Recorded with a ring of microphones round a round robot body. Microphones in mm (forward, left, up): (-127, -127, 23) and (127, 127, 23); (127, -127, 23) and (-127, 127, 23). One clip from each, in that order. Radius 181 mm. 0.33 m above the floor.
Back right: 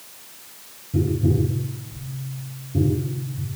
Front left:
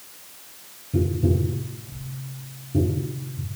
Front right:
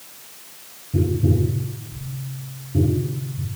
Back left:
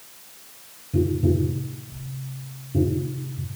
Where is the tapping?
90° left, 6 m.